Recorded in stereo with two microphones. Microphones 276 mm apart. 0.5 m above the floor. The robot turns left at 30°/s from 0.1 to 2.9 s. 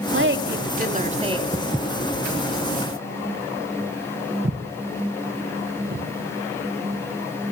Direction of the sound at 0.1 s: 115° right.